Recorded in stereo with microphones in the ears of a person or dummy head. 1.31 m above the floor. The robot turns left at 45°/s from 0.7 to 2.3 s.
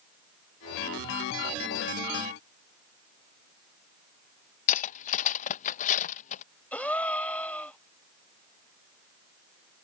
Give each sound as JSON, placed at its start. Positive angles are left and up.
{"t": 4.7, "sound": "cutlery clinking", "side_deg": 45}
{"t": 6.7, "sound": "a gasp", "side_deg": 5}